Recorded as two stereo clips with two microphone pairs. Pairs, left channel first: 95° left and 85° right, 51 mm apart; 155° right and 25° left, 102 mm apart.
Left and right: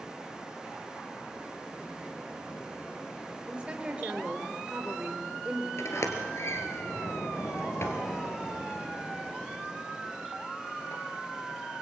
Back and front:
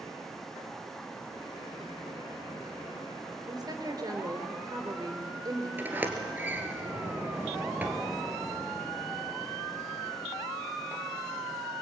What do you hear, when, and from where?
3.5 s a woman speaking: 20° right, 3.5 m
5.8 s a sliding door: 95° left, 2.5 m